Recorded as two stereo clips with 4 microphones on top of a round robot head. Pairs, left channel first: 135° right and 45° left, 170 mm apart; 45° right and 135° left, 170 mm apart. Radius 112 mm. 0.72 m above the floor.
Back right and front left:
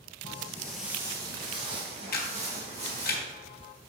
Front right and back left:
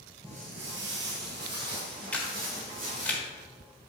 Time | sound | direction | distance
0.2 | footsteps | 170° right | 0.9 m
2.1 | a camera shutter | 130° right | 1.6 m